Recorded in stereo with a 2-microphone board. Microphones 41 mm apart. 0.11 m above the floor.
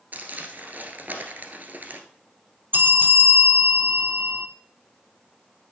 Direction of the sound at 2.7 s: 50° right (ahead or behind).